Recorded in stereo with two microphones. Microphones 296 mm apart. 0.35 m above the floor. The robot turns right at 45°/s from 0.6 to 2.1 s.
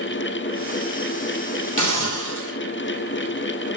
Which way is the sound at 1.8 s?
80° left.